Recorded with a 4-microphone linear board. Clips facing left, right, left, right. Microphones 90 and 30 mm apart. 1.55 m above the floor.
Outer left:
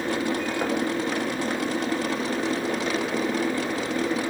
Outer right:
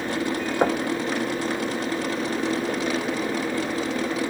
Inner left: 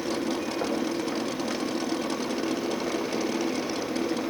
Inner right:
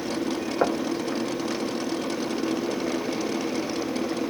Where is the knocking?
40° right (ahead or behind), 0.9 m.